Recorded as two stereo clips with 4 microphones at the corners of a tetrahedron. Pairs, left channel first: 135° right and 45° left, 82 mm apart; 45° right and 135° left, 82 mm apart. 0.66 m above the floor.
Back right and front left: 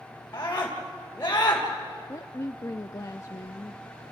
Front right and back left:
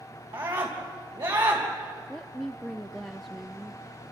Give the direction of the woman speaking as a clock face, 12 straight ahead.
4 o'clock.